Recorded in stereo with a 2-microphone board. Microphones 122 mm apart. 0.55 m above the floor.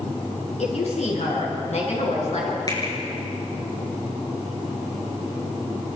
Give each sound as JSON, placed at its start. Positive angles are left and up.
{"t": 0.6, "sound": "a woman speaking", "side_deg": 70, "distance_m": 7.5}
{"t": 2.7, "sound": "a finger snap", "side_deg": 35, "distance_m": 7.0}